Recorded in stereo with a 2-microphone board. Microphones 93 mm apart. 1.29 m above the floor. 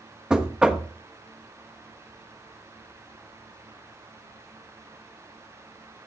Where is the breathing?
I don't hear breathing.